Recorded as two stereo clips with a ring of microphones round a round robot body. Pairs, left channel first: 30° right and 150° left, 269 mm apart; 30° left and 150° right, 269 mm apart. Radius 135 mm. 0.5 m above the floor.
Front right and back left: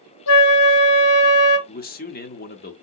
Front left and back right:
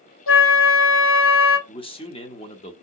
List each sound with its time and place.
0.3 s a flute: 5° right, 1.0 m
1.7 s a man speaking: 25° right, 0.7 m